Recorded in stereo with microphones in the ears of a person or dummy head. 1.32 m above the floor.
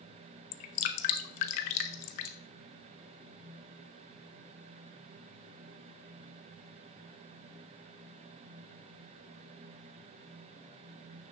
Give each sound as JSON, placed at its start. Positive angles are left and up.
{"t": 0.5, "sound": "dripping", "side_deg": 40, "distance_m": 0.6}